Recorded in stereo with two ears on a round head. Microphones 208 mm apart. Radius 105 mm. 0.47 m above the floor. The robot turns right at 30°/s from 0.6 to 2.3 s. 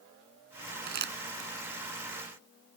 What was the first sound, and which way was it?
Crumpling, 45° right (ahead or behind).